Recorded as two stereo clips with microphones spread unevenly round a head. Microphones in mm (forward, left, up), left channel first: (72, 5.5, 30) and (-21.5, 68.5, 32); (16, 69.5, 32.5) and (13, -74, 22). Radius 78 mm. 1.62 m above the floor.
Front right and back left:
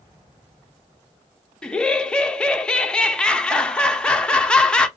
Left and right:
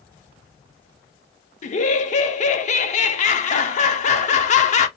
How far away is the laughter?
About 0.6 m.